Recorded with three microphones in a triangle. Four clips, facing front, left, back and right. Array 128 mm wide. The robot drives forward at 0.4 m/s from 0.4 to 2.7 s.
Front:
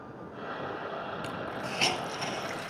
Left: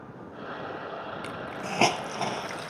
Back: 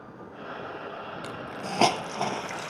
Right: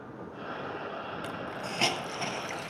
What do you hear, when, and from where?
1.2 s a hiss: 135° left, 0.6 m; by 2.7 s 160° left, 1.1 m